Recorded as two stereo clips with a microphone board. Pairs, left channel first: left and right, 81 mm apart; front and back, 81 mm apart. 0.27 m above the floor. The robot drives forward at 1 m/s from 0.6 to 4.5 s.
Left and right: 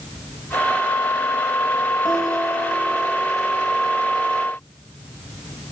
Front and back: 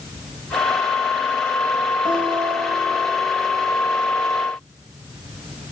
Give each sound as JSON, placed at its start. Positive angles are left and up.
{"t": 2.0, "sound": "a guitar", "azimuth_deg": 180, "distance_m": 8.0}